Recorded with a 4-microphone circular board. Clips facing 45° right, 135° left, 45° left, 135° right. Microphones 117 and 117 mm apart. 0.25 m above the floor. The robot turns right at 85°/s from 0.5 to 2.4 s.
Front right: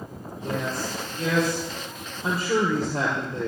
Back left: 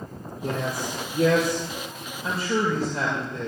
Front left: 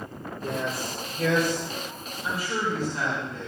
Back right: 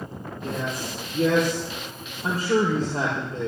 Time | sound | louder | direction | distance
0.4 | a man speaking | back left 1 dB, even | 110° left | 6 m